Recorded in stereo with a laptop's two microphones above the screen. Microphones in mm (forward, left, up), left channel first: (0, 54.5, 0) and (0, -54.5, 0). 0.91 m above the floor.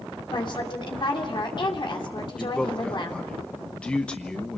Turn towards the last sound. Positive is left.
turn(degrees=10)  # may be behind; listen again after turning